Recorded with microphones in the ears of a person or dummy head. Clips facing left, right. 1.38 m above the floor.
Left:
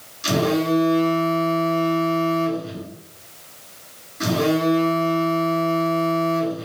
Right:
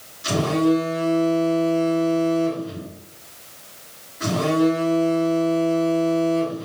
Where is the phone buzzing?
65° left (ahead or behind), 3 m.